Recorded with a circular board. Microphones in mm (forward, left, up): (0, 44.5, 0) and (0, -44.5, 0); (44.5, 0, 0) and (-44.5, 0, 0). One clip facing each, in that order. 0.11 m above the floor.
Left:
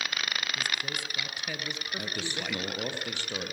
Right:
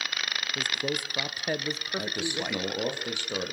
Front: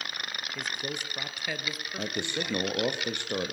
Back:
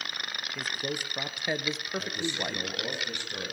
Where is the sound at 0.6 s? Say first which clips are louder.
Right 3 dB, back 2 dB; 95° right, 1.9 m; by 2.6 s 160° right, 1.8 m.